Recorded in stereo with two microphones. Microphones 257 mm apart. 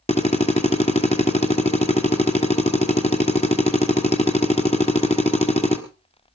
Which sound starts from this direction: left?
A drill, at 0.1 s.